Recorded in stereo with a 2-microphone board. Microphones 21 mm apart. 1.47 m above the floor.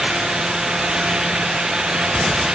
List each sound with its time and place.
Only background noise.